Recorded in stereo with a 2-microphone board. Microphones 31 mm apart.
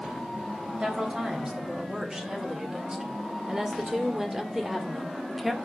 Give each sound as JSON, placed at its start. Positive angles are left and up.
{"t": 0.8, "sound": "a woman speaking", "side_deg": -25, "distance_m": 4.0}